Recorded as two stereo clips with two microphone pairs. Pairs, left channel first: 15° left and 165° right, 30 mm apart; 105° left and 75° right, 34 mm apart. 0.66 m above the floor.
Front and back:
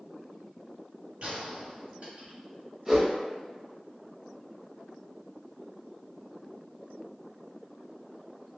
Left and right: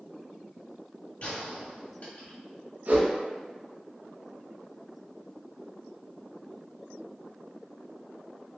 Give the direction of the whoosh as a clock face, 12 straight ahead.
3 o'clock.